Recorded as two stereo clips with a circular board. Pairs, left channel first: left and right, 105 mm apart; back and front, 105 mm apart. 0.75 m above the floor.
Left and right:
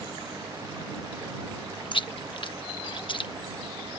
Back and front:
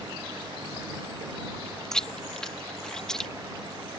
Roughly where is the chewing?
Left.